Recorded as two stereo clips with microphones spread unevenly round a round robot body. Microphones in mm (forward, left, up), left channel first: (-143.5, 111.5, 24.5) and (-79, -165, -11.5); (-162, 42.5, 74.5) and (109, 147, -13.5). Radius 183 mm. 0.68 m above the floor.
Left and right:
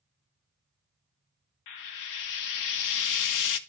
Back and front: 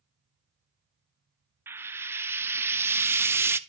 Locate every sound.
1.7 s frying: 95° left, 0.5 m